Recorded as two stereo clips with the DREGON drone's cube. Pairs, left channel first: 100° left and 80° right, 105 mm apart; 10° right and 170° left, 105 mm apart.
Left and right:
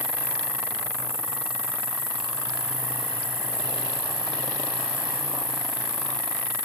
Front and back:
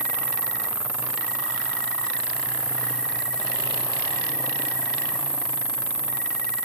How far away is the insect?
About 1.1 m.